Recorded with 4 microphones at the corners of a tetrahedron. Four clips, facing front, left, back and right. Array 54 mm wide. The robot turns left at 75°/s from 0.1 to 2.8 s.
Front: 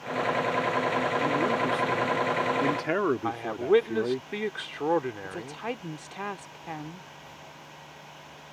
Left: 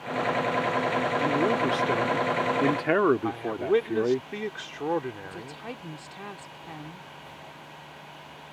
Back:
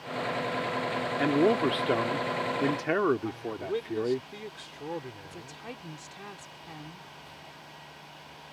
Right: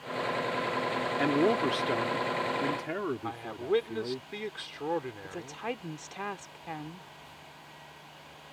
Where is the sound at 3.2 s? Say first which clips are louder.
Left 6 dB, front 7 dB; 15° left.